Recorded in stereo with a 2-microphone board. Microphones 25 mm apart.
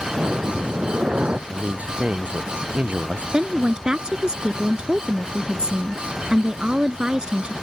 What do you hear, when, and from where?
0.1 s breathing: 55° right (ahead or behind)
1.5 s a man speaking: 65° right (ahead or behind)
3.3 s a woman speaking: 40° right (ahead or behind)